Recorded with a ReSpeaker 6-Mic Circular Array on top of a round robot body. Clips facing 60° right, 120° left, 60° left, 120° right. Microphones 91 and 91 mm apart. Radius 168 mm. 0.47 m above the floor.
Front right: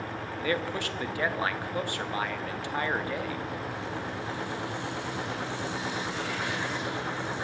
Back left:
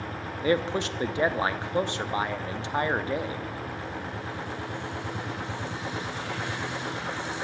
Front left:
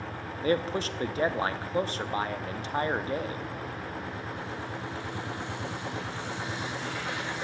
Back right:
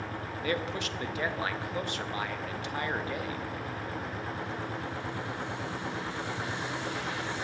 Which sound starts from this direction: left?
A man speaking, at 0.4 s.